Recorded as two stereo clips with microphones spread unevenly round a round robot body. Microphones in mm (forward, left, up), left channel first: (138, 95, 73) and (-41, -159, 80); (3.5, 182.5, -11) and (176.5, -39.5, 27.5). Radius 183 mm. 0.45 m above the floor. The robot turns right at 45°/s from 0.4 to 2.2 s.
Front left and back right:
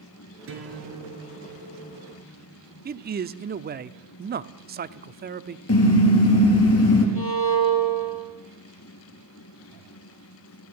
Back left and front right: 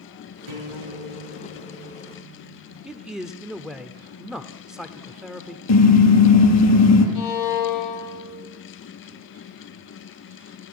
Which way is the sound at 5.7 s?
105° left.